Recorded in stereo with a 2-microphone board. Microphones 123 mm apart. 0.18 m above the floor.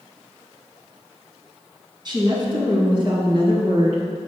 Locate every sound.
2.0 s a woman speaking: 40° right (ahead or behind), 2.0 m; by 4.0 s 50° right (ahead or behind), 2.5 m